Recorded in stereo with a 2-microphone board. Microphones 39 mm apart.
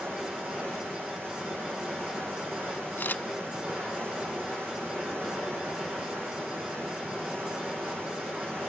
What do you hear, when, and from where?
0.0 s running water: 75° right (ahead or behind), 6.5 m
3.0 s a camera shutter: 55° left (ahead or behind), 0.6 m